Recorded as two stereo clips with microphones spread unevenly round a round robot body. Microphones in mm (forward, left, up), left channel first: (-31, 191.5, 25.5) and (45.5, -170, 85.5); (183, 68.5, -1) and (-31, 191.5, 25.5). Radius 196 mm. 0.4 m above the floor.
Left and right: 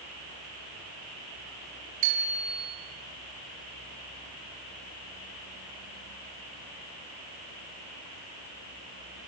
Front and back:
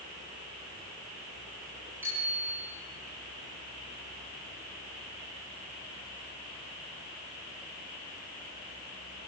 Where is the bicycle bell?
125° right, 7 m.